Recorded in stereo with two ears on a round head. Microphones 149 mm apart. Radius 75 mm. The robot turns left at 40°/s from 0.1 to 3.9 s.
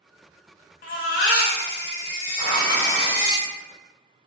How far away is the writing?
About 1.8 m.